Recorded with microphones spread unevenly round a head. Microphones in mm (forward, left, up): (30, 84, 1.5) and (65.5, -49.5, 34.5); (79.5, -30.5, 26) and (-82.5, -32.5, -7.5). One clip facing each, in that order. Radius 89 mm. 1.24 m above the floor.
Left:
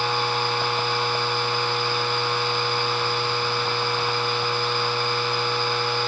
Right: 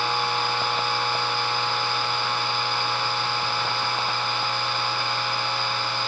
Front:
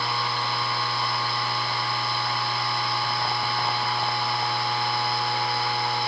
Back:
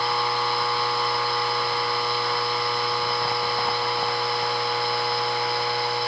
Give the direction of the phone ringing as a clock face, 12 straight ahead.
No phone ringing in this recording.